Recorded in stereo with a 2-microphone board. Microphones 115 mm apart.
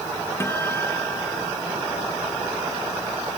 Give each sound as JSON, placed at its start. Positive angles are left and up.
{"t": 0.4, "sound": "a guitar", "side_deg": 20}